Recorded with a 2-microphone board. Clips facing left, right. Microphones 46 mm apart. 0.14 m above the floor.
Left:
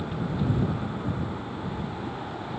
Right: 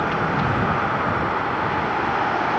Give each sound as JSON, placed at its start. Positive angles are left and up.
{"t": 0.0, "sound": "a vehicle", "side_deg": -85}